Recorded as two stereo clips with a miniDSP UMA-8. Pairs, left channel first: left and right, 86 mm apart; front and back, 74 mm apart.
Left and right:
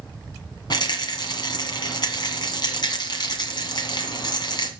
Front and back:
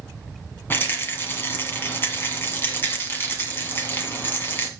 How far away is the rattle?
About 1.2 m.